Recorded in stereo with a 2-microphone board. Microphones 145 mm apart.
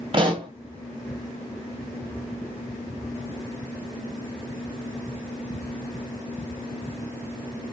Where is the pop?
40° right (ahead or behind), 1.3 m.